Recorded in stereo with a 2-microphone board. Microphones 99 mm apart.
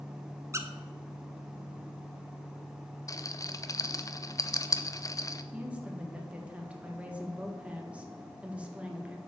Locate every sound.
0.5 s a squeak: 30° right (ahead or behind), 0.8 m
3.1 s a rattle: 35° left (ahead or behind), 0.5 m
5.5 s a woman speaking: 10° right (ahead or behind), 1.7 m